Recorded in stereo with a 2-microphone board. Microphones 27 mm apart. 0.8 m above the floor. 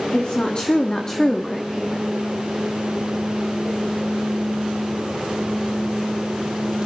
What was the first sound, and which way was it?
A woman speaking, 45° left (ahead or behind).